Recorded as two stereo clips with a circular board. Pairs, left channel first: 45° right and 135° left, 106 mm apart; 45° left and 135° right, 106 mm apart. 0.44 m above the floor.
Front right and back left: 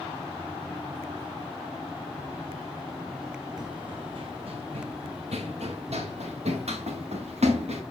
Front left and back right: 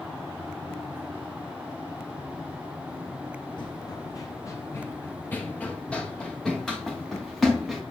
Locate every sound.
3.6 s running footsteps: 90° left, 1.3 m; by 7.8 s 135° left, 3 m